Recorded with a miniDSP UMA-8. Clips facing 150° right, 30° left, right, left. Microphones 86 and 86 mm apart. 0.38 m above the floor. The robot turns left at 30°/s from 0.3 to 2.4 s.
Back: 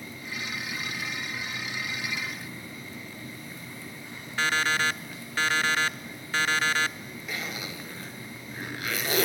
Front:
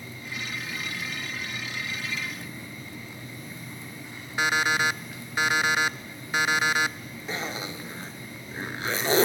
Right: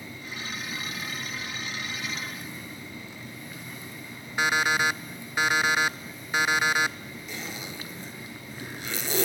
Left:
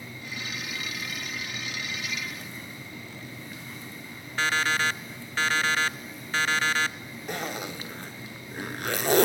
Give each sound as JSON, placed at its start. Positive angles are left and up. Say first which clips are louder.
{"t": 4.4, "sound": "an alarm clock", "louder": "front 2 dB, right 2 dB", "azimuth_deg": -30, "distance_m": 0.5}
{"t": 7.3, "sound": "a zipper", "louder": "front 4 dB, left 7 dB", "azimuth_deg": 85, "distance_m": 2.0}